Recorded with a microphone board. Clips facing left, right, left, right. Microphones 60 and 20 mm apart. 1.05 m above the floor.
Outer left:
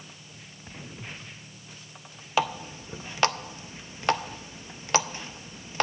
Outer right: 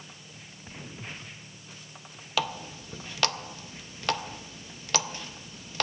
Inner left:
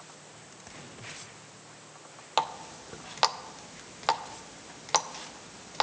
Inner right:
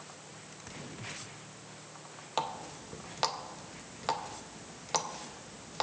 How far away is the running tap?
About 0.5 m.